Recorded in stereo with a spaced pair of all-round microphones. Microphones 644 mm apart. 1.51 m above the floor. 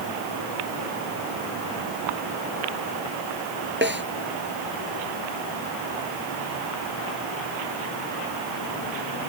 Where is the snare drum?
15° right (ahead or behind).